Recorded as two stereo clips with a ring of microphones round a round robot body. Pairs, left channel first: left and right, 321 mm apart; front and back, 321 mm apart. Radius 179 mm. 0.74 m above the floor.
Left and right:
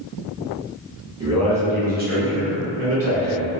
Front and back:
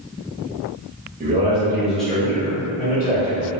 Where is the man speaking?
150° right, 0.9 m; by 3.5 s 50° right, 1.4 m.